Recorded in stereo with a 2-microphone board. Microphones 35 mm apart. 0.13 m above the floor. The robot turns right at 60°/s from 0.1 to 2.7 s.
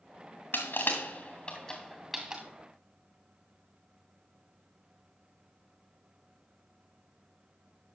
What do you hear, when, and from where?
0.5 s crushing: 85° left, 2.5 m; by 2.4 s 30° right (ahead or behind), 2.5 m